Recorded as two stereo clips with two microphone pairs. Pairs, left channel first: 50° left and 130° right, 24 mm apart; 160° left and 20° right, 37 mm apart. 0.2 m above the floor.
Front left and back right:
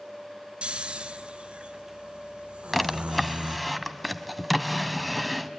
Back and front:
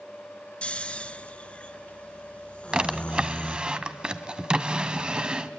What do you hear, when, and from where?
0.6 s snoring: 150° right, 0.9 m
2.7 s a drawer: 40° right, 0.9 m